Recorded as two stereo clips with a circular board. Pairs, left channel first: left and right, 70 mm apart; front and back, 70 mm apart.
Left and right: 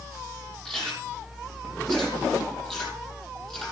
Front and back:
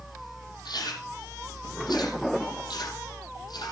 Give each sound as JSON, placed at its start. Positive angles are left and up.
{"t": 0.7, "sound": "chewing", "azimuth_deg": 10, "distance_m": 7.5}